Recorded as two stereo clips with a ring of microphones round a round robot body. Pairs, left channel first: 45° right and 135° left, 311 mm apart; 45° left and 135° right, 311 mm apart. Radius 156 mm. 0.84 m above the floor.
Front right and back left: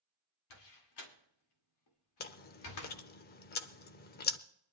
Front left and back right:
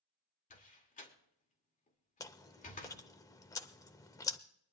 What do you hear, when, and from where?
0.5 s a door slam: 20° right, 2 m
2.2 s chewing: 25° right, 0.5 m